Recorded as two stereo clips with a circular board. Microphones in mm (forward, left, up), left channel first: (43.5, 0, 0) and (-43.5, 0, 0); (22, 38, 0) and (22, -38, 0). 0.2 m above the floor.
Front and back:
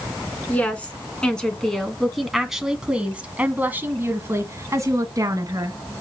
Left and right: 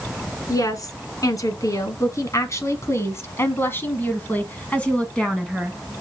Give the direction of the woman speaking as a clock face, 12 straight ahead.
10 o'clock.